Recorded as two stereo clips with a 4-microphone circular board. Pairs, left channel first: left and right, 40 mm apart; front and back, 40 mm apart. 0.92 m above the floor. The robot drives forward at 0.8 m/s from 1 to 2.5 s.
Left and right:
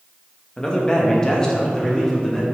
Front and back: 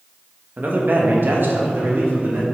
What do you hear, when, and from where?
0.6 s a man speaking: 155° left, 1.3 m; by 2.5 s 170° left, 2.5 m